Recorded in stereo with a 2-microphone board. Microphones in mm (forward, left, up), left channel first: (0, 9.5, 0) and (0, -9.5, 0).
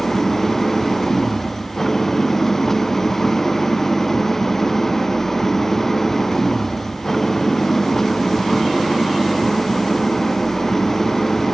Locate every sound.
0.0 s an engine running: 25° left (ahead or behind)